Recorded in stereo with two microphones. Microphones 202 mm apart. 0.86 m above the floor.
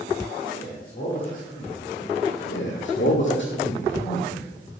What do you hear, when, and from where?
0.5 s a man speaking: 45° left (ahead or behind), 3.5 m
2.5 s a man speaking: 70° left (ahead or behind), 1.7 m